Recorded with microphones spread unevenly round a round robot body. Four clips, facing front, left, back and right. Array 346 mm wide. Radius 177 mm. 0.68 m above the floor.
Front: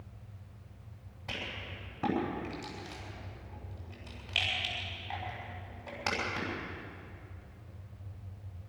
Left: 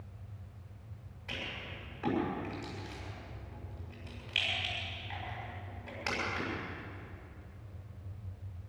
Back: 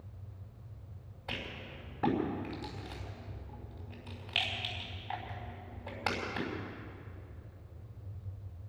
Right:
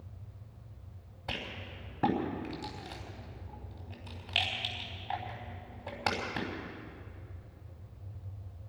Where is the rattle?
80° right, 5.5 m.